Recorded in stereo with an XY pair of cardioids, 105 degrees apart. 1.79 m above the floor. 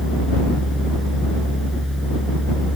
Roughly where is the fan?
Ahead.